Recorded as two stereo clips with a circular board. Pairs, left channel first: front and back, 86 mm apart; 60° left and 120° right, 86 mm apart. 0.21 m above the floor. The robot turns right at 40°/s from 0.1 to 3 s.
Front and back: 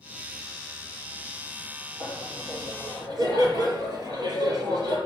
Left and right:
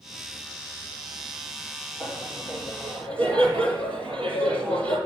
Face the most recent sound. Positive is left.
turn(degrees=-135)